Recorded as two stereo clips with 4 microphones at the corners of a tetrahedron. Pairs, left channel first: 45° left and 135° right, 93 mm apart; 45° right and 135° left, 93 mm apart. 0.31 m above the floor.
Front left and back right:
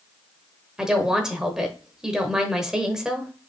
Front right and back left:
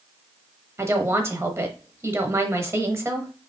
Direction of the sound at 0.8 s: 150° left.